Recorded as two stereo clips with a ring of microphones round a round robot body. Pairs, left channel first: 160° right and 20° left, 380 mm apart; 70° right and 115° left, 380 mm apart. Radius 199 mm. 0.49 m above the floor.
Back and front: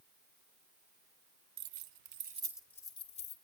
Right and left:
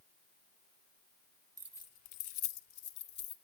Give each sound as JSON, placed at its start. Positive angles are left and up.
{"t": 1.6, "sound": "keys jangling", "azimuth_deg": 30, "distance_m": 0.9}